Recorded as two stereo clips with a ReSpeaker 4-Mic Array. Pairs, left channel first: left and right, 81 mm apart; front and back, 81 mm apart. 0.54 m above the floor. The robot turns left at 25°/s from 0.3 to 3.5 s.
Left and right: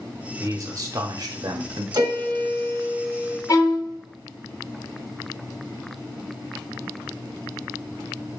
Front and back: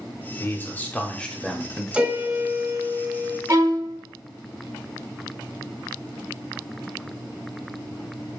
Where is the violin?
130° left, 0.7 m.